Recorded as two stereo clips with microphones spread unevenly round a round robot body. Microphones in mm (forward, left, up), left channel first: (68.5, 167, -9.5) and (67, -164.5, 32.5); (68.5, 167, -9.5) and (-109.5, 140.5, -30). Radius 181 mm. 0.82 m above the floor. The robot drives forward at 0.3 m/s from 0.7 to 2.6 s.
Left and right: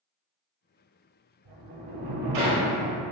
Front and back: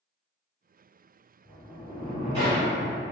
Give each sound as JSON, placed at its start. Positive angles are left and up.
{"t": 1.4, "sound": "a sliding door", "azimuth_deg": -85, "distance_m": 1.3}